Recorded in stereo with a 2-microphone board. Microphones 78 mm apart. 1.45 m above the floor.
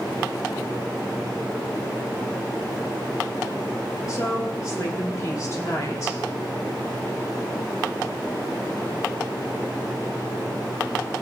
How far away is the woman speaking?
About 3 m.